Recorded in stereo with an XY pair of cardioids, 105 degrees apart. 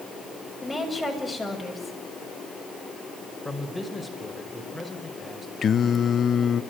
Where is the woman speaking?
10° left, 7.5 m.